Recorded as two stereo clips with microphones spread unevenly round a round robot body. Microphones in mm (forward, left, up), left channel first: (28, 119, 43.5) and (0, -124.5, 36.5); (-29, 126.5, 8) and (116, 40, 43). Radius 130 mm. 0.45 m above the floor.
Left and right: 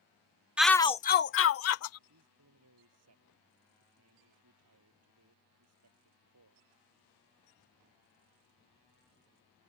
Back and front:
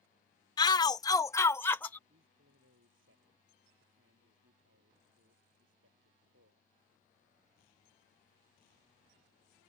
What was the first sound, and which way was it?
A shout, straight behind.